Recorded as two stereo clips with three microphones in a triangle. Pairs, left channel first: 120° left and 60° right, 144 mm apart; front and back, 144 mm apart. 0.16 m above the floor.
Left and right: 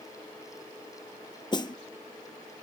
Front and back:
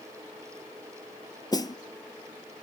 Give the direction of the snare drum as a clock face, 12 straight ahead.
10 o'clock.